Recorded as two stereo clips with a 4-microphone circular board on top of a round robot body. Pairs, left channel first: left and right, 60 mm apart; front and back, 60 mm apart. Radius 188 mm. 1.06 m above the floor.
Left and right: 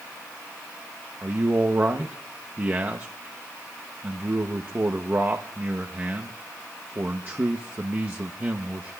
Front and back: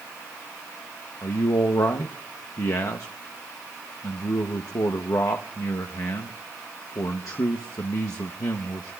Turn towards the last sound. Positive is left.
turn(degrees=-30)